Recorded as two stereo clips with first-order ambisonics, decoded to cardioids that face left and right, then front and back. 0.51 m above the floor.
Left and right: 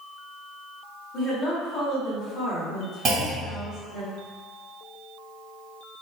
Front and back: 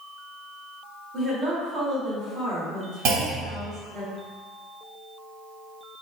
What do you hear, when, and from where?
1.1 s a woman speaking: 140° left, 1.3 m
3.0 s a clunk: 155° right, 2.0 m